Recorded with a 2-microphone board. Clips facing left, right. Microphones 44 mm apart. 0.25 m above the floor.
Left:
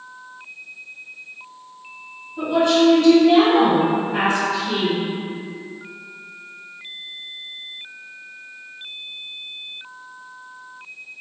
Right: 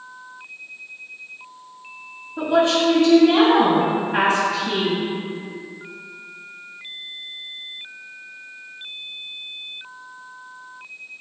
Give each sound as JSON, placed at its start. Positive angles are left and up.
{"t": 2.4, "sound": "a woman speaking", "side_deg": -35, "distance_m": 1.1}